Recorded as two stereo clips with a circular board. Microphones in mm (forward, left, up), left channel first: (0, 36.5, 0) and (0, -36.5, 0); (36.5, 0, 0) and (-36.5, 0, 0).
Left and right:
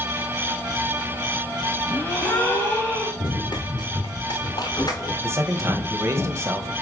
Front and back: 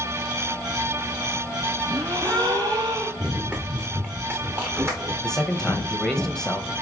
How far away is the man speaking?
About 1.3 m.